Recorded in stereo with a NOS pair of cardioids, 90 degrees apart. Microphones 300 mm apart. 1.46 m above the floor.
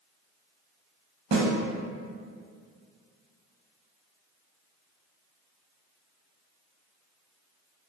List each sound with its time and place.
1.3 s a snare drum: 40° right, 0.7 m